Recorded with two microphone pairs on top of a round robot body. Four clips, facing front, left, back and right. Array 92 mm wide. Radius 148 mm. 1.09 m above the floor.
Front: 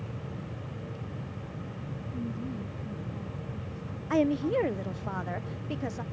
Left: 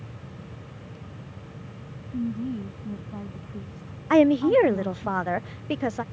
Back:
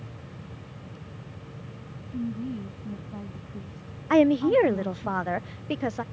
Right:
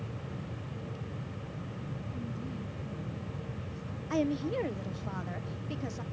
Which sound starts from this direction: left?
A woman speaking, at 2.1 s.